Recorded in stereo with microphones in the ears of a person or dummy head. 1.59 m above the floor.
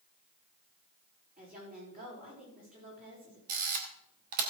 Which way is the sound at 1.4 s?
40° right (ahead or behind).